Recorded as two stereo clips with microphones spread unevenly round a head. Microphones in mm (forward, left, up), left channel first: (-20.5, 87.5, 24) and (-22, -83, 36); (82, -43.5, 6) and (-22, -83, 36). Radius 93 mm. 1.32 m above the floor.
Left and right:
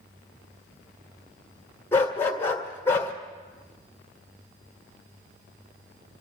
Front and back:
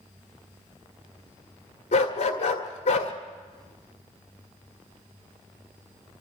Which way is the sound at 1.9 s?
10° left.